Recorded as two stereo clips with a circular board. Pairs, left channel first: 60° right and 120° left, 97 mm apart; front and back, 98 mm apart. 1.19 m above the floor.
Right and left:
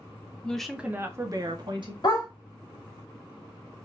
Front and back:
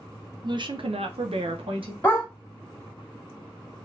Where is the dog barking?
60° right, 1.0 m.